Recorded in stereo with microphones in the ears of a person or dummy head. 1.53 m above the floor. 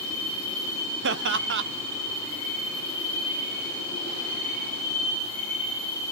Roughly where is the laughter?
Right.